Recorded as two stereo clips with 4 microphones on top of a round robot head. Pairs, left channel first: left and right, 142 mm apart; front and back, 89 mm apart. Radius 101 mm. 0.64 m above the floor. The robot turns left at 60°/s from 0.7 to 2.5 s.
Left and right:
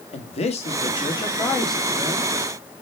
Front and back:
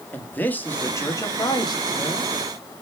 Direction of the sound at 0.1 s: 65° left.